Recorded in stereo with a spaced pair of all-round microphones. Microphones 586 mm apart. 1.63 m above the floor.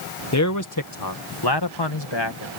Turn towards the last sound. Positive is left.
turn(degrees=50)  # may be behind; listen again after turning